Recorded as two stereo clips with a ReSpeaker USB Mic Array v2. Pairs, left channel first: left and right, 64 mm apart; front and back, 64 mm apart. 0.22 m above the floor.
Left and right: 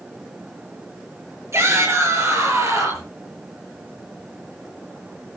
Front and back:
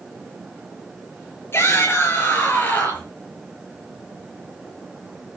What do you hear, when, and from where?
1.5 s a shout: 50° right, 5 m; by 3.1 s 65° right, 5 m